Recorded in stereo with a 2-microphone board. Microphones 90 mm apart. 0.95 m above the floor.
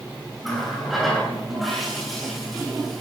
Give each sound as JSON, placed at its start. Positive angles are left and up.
{"t": 0.4, "sound": "a running tap", "side_deg": 0, "distance_m": 9.0}